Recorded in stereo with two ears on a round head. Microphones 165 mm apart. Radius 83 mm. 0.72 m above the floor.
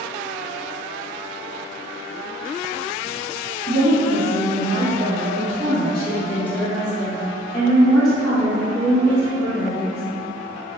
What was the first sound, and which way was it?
A woman speaking, 40° right (ahead or behind).